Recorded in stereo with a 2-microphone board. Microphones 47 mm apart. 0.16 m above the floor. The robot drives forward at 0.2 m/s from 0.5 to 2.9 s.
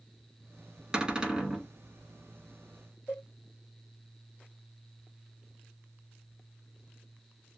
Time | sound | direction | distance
0.9 | a cupboard door | 15° right (ahead or behind) | 0.9 m
3.1 | a cowbell | 30° left (ahead or behind) | 1.7 m